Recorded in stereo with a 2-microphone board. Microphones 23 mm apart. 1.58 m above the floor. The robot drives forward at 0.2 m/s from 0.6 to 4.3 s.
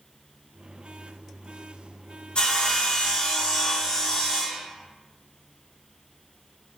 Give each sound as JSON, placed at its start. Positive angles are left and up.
{"t": 2.4, "sound": "sawing", "side_deg": 45, "distance_m": 0.6}